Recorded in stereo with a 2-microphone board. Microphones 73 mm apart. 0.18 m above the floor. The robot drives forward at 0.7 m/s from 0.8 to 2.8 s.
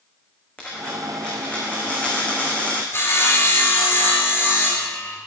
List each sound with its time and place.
0.6 s a dropped coin: 15° left (ahead or behind), 6.5 m; by 2.8 s 20° left (ahead or behind), 5 m
2.9 s sawing: 35° left (ahead or behind), 3.5 m